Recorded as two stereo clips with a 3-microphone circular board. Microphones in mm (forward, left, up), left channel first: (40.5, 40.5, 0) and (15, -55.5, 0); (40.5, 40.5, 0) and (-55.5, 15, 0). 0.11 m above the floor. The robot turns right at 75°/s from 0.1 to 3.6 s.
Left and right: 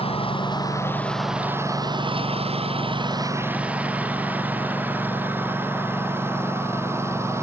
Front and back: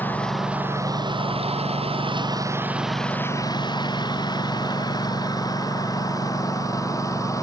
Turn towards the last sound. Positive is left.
turn(degrees=-40)